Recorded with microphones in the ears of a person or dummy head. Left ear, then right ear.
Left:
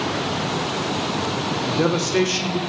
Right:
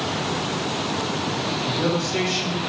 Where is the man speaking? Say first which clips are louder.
Left 4 dB; 60° left (ahead or behind), 0.6 m.